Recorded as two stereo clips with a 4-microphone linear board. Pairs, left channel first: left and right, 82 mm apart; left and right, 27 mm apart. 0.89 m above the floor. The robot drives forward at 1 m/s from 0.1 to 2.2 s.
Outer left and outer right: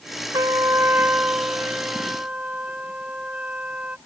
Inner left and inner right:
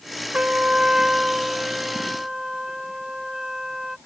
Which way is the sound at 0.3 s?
55° right (ahead or behind).